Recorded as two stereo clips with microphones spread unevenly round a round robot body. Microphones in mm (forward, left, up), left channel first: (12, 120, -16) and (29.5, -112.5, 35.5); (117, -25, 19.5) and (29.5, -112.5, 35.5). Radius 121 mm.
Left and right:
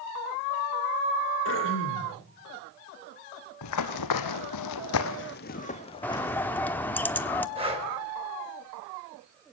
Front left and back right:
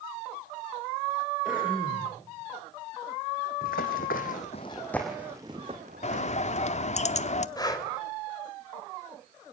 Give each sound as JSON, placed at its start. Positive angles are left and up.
{"t": 1.4, "sound": "throat clearing", "azimuth_deg": 140, "distance_m": 5.5}
{"t": 3.6, "sound": "running footsteps", "azimuth_deg": 75, "distance_m": 2.0}
{"t": 6.0, "sound": "a bird", "azimuth_deg": 15, "distance_m": 1.1}
{"t": 7.6, "sound": "breathing", "azimuth_deg": -15, "distance_m": 3.5}